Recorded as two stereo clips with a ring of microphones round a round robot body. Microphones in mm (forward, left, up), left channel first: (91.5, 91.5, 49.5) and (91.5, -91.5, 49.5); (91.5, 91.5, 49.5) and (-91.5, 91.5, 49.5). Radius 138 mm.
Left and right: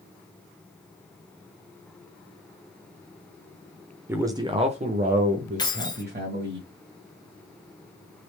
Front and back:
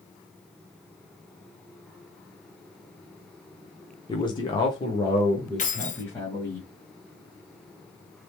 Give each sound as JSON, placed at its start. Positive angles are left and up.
{"t": 4.1, "sound": "a man speaking", "azimuth_deg": -25, "distance_m": 0.9}
{"t": 5.6, "sound": "keys jangling", "azimuth_deg": 30, "distance_m": 1.2}